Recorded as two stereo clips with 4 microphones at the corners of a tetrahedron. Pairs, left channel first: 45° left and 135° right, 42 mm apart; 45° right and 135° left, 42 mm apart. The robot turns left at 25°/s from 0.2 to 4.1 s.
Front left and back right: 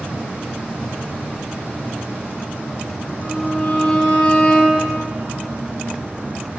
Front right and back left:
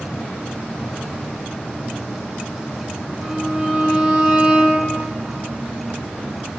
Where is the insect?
90° right, 2.5 m; by 6.6 s 175° left, 2.5 m.